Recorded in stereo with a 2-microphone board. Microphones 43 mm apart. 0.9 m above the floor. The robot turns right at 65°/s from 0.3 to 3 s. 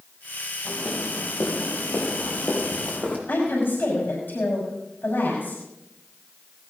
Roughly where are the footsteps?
Left.